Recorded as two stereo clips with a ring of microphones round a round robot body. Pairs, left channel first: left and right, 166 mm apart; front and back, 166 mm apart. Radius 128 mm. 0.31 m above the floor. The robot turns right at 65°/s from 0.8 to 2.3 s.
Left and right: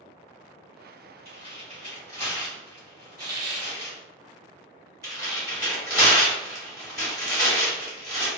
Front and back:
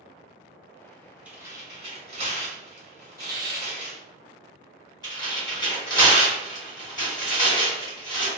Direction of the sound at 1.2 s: 105° left.